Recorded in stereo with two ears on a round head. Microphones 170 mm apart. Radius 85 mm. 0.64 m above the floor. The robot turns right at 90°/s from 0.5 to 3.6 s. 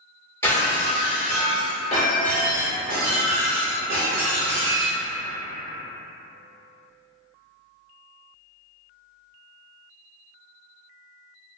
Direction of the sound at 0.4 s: 15° left.